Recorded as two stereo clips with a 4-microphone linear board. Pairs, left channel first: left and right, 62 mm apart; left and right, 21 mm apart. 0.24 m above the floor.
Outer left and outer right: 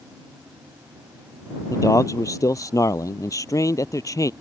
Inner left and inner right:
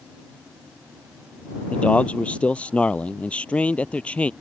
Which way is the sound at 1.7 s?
65° left (ahead or behind).